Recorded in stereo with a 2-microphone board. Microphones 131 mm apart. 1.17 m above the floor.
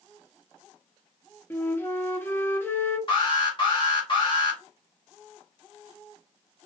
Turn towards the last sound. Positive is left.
turn(degrees=40)  # may be behind; listen again after turning